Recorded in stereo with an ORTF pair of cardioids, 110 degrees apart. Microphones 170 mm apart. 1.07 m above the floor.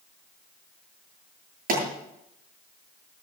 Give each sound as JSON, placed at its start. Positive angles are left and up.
{"t": 1.7, "sound": "a pop", "azimuth_deg": -55, "distance_m": 8.5}